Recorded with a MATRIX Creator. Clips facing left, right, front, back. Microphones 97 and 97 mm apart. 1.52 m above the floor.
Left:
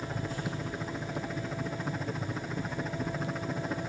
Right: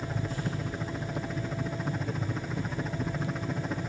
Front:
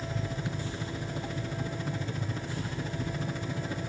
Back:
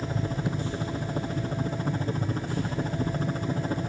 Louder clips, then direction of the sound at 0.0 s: Right 1 dB, back 5 dB; straight behind.